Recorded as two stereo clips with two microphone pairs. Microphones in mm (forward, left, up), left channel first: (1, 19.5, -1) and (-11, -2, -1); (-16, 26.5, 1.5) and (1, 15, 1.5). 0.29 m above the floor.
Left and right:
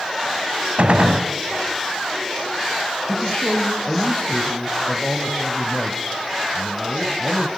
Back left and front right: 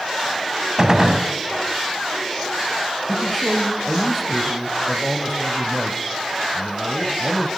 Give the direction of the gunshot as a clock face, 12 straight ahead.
3 o'clock.